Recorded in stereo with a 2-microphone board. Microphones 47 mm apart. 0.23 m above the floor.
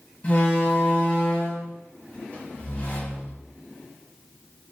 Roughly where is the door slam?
Left.